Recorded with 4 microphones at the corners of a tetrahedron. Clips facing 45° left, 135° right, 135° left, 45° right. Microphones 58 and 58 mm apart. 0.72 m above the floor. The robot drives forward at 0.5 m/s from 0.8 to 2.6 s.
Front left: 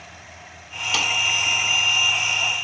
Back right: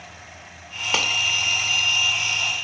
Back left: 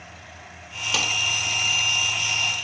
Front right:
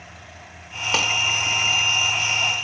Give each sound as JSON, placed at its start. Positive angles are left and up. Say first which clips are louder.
{"t": 0.9, "sound": "a clap", "louder": "back right 1 dB, front right 3 dB", "azimuth_deg": -85, "distance_m": 1.8}